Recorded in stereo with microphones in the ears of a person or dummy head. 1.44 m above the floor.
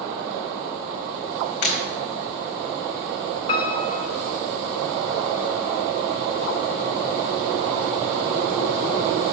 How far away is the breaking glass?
About 3 m.